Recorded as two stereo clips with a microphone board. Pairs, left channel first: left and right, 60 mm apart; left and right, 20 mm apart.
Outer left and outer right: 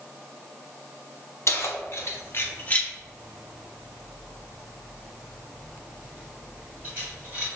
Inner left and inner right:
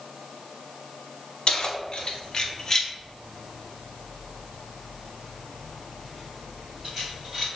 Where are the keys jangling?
55° left (ahead or behind), 1.0 m; by 7.5 s 25° right (ahead or behind), 3.5 m.